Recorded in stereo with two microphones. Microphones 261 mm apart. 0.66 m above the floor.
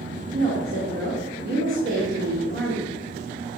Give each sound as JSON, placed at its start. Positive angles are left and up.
{"t": 0.3, "sound": "a woman speaking", "side_deg": -50, "distance_m": 1.9}